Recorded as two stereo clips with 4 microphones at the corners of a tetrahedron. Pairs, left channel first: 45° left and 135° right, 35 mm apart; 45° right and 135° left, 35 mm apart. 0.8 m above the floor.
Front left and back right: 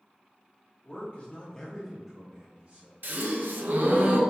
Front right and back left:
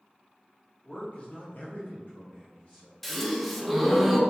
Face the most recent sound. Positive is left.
turn(degrees=-135)